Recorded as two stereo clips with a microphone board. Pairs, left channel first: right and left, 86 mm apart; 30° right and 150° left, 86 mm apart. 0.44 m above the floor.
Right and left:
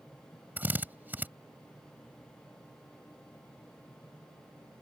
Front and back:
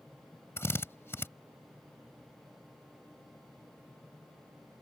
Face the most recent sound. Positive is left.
turn(degrees=25)